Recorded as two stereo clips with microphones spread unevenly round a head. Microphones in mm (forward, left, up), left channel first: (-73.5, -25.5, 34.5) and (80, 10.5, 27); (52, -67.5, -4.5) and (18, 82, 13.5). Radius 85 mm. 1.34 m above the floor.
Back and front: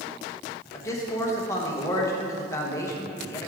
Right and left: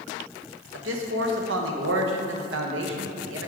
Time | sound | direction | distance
0.7 | a man speaking | 120° left | 1.1 m